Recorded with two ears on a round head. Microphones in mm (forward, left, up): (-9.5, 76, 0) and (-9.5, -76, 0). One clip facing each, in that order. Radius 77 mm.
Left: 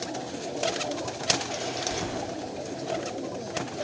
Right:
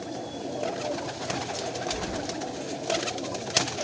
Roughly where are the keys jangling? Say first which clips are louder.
Left 1 dB; left.